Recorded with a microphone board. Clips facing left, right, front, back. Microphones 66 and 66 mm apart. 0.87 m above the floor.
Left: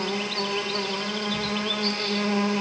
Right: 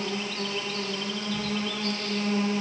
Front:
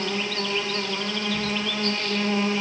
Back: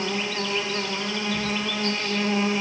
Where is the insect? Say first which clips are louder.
Left 3 dB, even; 105° left, 0.9 m.